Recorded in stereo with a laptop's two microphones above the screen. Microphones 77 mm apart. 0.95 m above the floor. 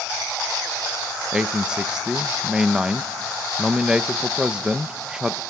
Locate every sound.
1.3 s a man speaking: 10° right (ahead or behind), 0.8 m